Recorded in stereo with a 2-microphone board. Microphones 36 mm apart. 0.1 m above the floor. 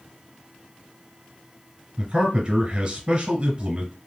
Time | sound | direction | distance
2.0 | a man speaking | 25° right (ahead or behind) | 1.2 m